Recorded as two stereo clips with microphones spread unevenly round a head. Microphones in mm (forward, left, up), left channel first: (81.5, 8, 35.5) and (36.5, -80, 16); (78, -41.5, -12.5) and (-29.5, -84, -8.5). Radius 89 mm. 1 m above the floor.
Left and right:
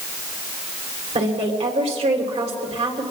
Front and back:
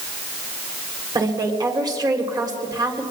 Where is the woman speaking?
105° right, 3.5 m.